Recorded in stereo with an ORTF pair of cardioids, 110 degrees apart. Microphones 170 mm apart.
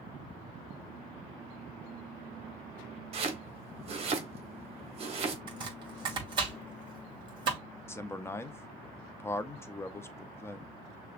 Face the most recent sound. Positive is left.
turn(degrees=15)